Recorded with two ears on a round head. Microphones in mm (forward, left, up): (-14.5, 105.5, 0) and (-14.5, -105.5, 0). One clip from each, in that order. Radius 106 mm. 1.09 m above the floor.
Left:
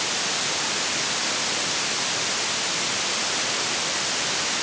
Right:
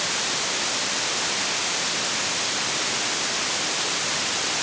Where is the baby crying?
I don't hear a baby crying.